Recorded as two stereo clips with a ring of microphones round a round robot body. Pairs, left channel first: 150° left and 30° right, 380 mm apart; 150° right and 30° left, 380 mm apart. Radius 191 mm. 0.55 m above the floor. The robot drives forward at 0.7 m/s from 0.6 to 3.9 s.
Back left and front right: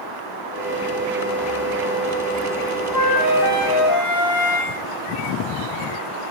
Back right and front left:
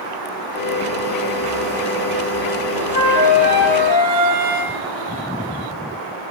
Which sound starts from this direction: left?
A flute, at 2.9 s.